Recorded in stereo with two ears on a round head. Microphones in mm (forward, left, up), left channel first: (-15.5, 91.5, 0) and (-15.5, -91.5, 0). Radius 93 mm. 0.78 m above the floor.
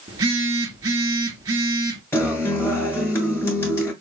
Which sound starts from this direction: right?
A phone buzzing, at 0.1 s.